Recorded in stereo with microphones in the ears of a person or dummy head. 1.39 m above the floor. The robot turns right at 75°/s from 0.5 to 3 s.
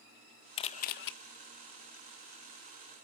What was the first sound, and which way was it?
A camera shutter, 35° left.